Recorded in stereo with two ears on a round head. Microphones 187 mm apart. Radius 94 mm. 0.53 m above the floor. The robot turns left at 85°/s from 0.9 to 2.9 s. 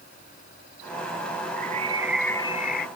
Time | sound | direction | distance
1.6 | a bird | 125° right | ?